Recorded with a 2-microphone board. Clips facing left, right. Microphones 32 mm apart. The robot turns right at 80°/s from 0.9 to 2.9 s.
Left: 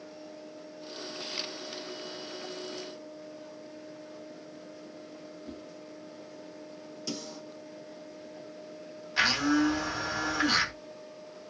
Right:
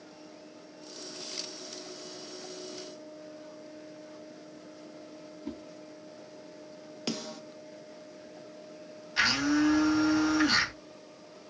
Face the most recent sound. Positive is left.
turn(degrees=5)  # may be behind; listen again after turning